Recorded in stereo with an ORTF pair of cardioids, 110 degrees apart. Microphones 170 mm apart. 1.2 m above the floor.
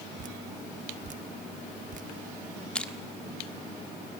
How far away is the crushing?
About 1.5 m.